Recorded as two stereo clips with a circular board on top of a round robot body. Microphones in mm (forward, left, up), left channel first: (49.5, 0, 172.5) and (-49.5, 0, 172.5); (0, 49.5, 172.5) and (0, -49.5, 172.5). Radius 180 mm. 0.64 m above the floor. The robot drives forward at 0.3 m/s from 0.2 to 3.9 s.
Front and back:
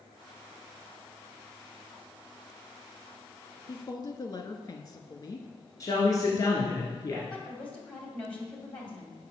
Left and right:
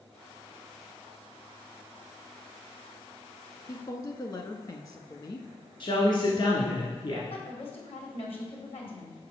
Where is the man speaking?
55° left, 1.8 m.